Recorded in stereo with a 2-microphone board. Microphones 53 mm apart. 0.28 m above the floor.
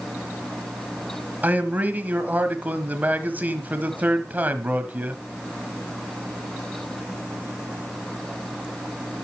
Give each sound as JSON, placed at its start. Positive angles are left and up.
{"t": 1.4, "sound": "a man speaking", "side_deg": -30, "distance_m": 1.4}